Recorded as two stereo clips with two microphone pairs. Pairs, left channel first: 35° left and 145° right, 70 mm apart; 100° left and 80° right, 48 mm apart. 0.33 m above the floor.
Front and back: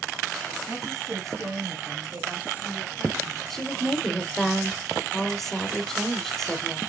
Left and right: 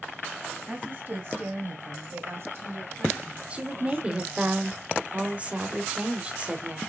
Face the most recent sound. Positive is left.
turn(degrees=-45)